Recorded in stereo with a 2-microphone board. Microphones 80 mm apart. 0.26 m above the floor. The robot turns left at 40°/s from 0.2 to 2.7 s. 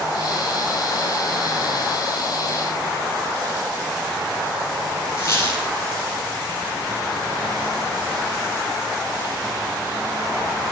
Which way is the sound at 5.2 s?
35° left (ahead or behind).